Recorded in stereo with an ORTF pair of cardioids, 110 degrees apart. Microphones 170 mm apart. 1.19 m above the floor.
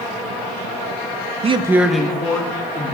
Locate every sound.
1.4 s a man speaking: 40° right, 0.5 m; by 3.0 s 20° left, 1.9 m